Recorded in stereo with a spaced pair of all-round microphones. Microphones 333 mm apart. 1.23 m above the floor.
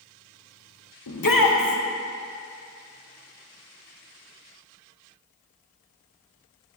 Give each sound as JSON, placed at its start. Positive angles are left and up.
{"t": 1.1, "sound": "a shout", "side_deg": 80, "distance_m": 0.9}